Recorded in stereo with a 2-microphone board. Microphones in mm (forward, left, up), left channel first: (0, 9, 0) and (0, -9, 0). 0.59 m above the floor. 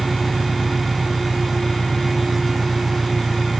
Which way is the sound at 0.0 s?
20° left (ahead or behind).